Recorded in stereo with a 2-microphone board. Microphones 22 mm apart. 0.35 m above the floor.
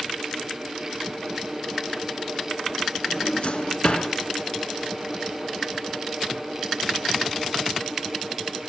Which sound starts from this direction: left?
A drawer, at 3.1 s.